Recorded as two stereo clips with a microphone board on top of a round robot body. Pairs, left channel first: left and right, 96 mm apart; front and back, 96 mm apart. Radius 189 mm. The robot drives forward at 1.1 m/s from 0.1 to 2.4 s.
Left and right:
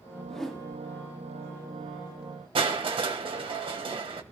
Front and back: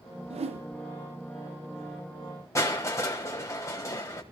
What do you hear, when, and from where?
0.3 s a whoosh: 175° left, 0.8 m
2.5 s crushing: 60° right, 1.4 m